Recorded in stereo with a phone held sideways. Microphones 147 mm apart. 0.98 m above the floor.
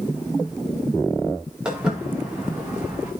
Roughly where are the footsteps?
Centre.